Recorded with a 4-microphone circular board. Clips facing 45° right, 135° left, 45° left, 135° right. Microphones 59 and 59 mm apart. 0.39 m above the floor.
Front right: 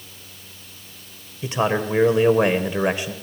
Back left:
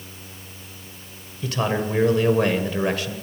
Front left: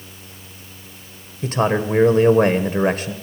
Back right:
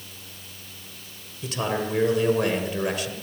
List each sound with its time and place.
1.4 s a man speaking: 20° left, 1.3 m